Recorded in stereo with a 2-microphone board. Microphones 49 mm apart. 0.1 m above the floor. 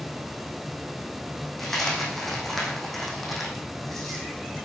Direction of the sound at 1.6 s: 5° left (ahead or behind).